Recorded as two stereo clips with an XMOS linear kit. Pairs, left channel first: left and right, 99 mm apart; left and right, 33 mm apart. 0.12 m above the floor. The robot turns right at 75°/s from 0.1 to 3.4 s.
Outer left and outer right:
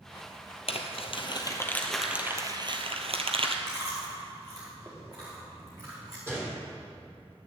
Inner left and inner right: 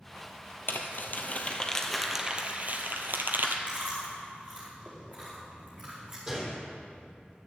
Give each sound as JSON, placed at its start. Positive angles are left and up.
{"t": 0.7, "sound": "crumpling", "side_deg": 65, "distance_m": 1.4}
{"t": 3.7, "sound": "chewing", "side_deg": -40, "distance_m": 5.0}
{"t": 6.3, "sound": "a gunshot", "side_deg": -25, "distance_m": 3.5}